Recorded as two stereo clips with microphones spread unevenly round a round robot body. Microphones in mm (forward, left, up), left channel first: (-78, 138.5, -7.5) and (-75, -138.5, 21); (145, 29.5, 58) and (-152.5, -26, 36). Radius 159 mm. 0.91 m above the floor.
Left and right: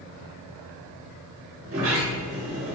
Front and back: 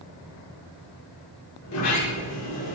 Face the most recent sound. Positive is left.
turn(degrees=-35)